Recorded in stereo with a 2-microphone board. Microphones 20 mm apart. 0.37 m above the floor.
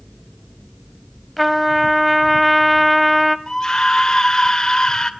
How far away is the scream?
About 1.4 m.